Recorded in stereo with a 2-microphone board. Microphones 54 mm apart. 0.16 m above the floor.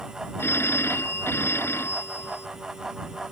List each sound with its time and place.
0.4 s a phone ringing: 55° left (ahead or behind)